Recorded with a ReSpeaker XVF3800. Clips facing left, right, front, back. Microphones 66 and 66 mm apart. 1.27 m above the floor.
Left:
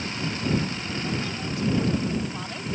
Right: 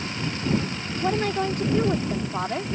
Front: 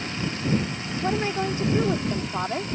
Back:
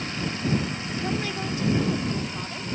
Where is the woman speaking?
65° right; by 2.6 s 40° right.